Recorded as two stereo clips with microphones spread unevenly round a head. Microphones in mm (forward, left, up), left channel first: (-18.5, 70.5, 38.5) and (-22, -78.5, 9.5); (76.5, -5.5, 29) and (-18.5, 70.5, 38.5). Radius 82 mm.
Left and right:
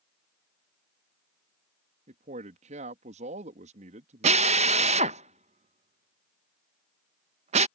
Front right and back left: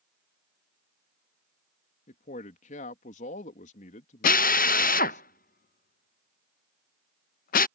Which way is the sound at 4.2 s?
40° right.